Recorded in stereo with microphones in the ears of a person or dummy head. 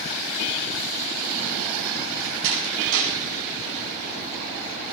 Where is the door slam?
75° right (ahead or behind), 6.5 m.